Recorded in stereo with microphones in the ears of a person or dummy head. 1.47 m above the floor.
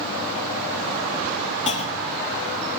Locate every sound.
1.7 s a clunk: 35° left (ahead or behind), 1.2 m